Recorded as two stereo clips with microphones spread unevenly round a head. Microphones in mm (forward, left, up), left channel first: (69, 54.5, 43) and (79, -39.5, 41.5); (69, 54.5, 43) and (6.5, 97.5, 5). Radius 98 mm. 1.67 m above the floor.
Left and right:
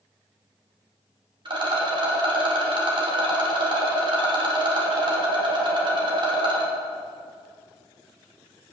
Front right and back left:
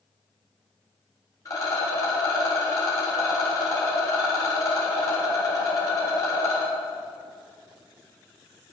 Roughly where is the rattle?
Ahead right.